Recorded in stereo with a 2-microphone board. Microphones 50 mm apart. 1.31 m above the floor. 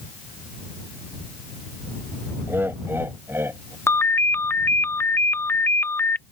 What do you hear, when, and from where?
2.5 s laughter: 45° right (ahead or behind); by 3.8 s 50° right (ahead or behind)
3.9 s a ringtone: 50° left (ahead or behind)